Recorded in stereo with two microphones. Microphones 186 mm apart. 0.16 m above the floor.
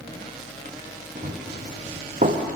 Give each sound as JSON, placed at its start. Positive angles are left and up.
{"t": 1.1, "sound": "running footsteps", "side_deg": -40, "distance_m": 1.8}